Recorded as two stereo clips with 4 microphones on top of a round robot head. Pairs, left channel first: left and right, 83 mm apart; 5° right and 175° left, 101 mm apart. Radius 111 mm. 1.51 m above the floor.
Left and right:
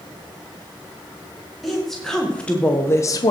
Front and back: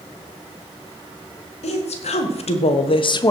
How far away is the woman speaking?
About 2.5 m.